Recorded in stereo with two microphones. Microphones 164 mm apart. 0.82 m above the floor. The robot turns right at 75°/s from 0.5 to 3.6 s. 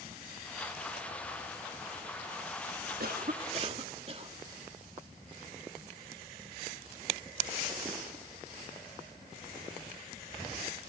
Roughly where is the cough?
Right.